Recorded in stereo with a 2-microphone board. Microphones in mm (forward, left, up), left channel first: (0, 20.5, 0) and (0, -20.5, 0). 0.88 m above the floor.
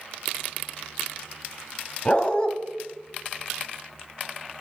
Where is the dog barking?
30° left (ahead or behind), 1.4 m.